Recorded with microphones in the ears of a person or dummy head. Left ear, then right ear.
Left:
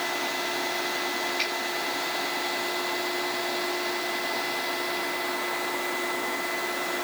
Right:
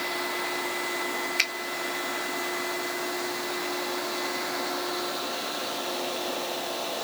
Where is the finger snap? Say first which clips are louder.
Right 5 dB; 50° right (ahead or behind), 0.7 m.